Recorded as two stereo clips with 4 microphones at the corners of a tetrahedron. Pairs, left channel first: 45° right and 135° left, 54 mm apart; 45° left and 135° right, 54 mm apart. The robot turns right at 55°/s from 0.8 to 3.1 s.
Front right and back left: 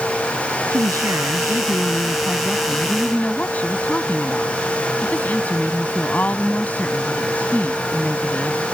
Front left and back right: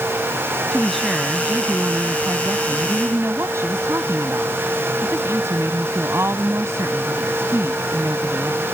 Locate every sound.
0.7 s a woman speaking: 130° left; by 8.6 s 105° right